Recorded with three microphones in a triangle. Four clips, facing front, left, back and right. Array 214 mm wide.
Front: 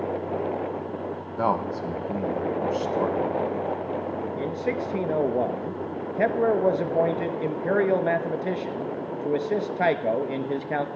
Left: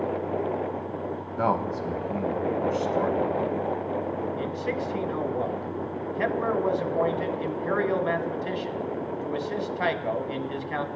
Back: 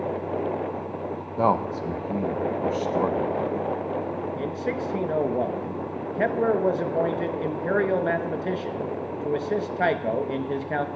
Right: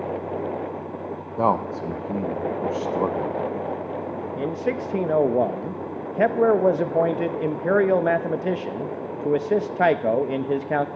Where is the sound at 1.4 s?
115° right, 0.9 m.